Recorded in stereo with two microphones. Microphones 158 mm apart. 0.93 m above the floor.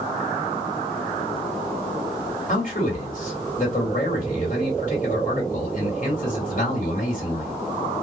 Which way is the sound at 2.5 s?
55° left (ahead or behind).